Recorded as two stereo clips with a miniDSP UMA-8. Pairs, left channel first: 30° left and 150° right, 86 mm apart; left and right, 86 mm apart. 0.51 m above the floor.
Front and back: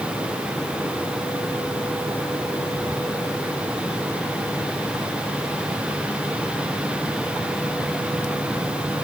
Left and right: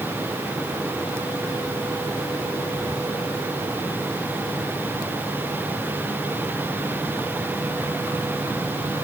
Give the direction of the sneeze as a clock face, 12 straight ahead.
I don't hear a sneeze.